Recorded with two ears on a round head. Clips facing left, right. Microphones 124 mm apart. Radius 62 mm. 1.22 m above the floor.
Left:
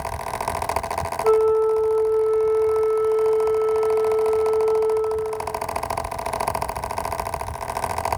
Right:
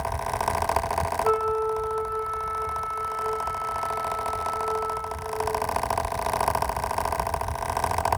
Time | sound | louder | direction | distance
1.2 | a flute | left 10 dB | 5° right (ahead or behind) | 2.5 m